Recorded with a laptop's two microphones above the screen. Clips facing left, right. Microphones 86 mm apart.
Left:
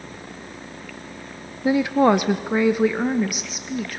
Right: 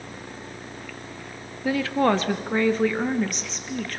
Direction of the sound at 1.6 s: 20° left (ahead or behind).